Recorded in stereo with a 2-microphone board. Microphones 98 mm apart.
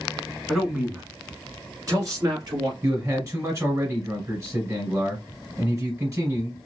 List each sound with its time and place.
0.5 s a man speaking: 5° right (ahead or behind), 1.1 m; by 2.7 s 45° right (ahead or behind), 1.5 m
2.8 s a man speaking: 30° right (ahead or behind), 2.0 m